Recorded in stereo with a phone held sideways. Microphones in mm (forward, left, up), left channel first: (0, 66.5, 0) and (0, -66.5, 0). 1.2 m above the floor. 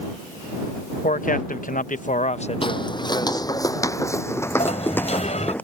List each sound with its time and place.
1.0 s a man speaking: 75° left (ahead or behind); by 3.5 s 25° left (ahead or behind)
2.6 s footsteps: 40° left (ahead or behind); by 5.6 s 10° left (ahead or behind)
4.6 s a sliding door: 55° left (ahead or behind)